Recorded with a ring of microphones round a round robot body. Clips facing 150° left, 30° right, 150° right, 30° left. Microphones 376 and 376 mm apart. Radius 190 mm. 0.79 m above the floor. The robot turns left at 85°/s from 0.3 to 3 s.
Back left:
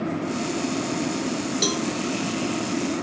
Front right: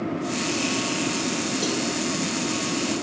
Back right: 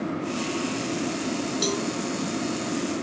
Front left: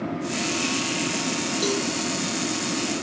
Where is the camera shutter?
No camera shutter in this recording.